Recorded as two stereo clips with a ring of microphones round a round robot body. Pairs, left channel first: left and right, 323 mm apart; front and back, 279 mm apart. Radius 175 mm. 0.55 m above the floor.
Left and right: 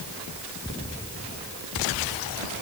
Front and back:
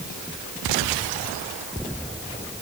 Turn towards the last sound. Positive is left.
No sound to turn to.